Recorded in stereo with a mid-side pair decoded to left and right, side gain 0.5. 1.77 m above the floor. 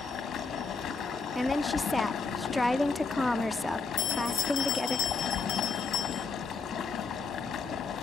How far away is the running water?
About 2.5 m.